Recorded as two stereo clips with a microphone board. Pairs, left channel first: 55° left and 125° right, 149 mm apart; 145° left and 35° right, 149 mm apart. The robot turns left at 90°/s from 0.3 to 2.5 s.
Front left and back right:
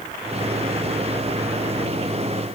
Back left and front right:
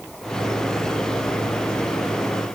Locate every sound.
Only background noise.